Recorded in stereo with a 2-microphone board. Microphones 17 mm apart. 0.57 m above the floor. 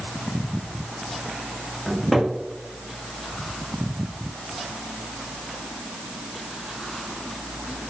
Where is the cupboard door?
Centre (ahead or behind), 0.7 m.